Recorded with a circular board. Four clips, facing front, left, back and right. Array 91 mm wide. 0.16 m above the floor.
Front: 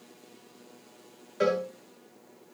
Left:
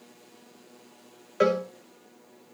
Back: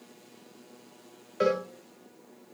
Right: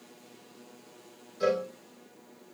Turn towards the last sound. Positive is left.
turn(degrees=95)